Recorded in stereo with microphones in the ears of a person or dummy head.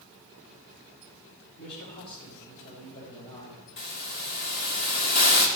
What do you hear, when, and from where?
1.6 s a man speaking: 60° left (ahead or behind), 3 m; by 3.6 s 35° left (ahead or behind), 3.5 m
3.8 s a hiss: 50° left (ahead or behind), 1.5 m